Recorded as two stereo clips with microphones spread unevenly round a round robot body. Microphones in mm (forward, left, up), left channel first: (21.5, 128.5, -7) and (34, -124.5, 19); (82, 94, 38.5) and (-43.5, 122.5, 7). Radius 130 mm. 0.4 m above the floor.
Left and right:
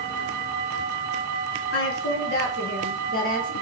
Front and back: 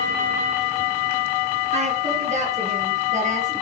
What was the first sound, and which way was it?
A woman speaking, 145° left.